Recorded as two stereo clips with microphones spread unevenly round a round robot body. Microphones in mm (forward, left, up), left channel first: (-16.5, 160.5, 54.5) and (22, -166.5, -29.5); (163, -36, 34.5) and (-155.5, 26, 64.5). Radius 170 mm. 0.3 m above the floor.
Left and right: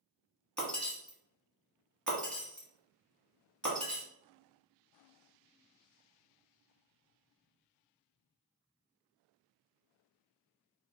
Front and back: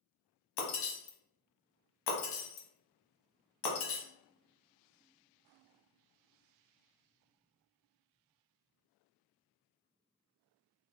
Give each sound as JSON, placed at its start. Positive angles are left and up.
{"t": 0.6, "sound": "breaking glass", "azimuth_deg": 5, "distance_m": 1.0}